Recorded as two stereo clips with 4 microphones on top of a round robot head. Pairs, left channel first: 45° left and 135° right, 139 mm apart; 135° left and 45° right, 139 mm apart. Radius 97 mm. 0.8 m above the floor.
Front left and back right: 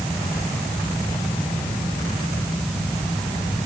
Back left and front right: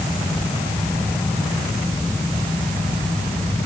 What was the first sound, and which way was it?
Only background noise.